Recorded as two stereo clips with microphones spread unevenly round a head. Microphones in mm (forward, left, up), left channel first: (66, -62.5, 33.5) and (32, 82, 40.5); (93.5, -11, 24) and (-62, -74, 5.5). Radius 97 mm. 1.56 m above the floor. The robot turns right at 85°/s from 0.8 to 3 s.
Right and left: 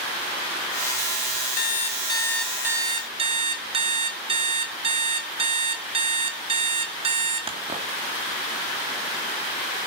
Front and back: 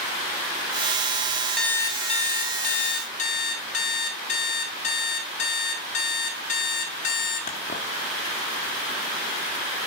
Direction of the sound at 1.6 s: 60° right.